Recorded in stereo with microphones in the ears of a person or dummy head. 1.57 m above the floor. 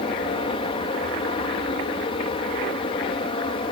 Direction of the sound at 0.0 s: 30° left (ahead or behind).